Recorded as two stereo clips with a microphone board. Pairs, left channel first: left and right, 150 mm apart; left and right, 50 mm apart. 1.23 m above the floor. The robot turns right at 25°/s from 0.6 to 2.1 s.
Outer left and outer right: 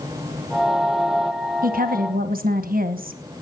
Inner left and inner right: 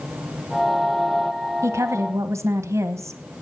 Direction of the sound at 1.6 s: 70° right (ahead or behind).